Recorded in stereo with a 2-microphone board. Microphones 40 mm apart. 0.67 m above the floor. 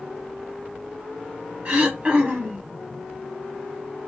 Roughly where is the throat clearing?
Right.